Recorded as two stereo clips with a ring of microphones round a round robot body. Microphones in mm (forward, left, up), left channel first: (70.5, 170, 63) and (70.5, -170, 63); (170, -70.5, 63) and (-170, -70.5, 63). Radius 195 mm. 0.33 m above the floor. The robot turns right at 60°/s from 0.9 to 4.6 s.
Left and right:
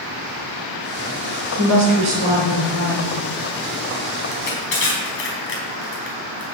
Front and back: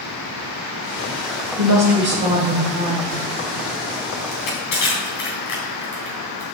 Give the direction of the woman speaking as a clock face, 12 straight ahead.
5 o'clock.